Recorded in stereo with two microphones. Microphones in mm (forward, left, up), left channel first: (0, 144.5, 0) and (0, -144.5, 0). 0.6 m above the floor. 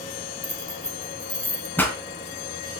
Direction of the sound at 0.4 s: 5° left (ahead or behind).